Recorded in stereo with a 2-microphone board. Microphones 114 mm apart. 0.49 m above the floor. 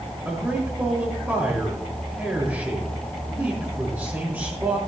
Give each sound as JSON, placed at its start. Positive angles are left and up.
{"t": 0.2, "sound": "a man speaking", "side_deg": -20, "distance_m": 5.5}